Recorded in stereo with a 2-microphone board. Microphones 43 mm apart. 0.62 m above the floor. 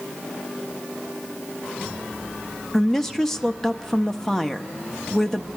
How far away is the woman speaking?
About 0.5 m.